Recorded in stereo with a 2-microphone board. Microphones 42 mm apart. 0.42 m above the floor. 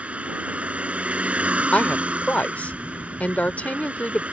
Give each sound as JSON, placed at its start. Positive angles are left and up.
{"t": 0.0, "sound": "a vehicle", "side_deg": -30}
{"t": 1.7, "sound": "a woman speaking", "side_deg": 35}